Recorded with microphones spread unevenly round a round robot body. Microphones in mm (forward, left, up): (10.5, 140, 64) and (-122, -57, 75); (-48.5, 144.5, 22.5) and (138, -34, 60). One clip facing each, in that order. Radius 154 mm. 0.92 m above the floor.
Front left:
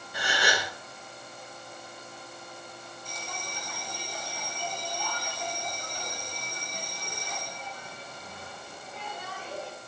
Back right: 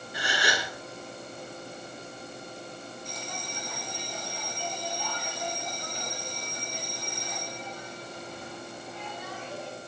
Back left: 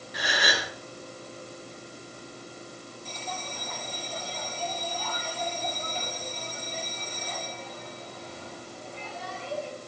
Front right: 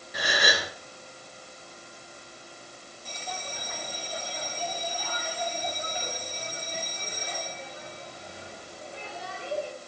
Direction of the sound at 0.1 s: Straight ahead.